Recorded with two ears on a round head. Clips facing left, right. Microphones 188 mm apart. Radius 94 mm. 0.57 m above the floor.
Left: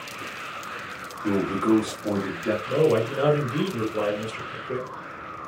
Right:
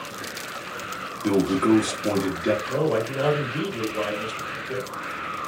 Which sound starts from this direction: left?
A man speaking, at 2.7 s.